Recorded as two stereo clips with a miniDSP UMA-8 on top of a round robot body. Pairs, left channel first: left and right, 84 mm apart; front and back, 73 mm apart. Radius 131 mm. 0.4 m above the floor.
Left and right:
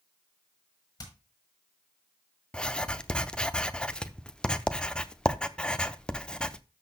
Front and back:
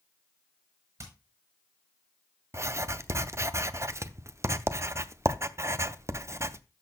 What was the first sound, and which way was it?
Hammering, 135° left.